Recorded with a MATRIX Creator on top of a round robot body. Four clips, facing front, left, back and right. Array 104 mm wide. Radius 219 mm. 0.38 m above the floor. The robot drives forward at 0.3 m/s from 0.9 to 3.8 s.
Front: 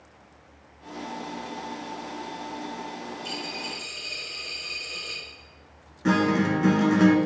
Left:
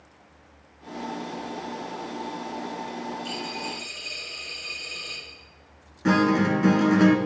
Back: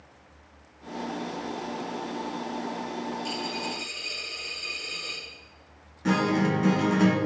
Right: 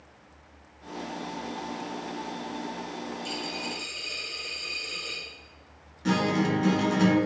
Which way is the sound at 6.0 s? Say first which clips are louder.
Left 5 dB, front 2 dB; 80° left.